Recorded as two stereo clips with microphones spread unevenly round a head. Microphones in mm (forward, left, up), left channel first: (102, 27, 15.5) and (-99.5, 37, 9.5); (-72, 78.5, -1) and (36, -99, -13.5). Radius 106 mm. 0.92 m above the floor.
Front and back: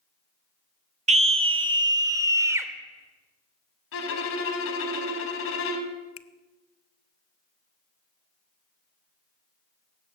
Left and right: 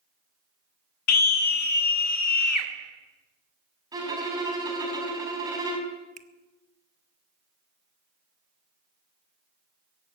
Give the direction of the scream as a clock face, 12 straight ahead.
8 o'clock.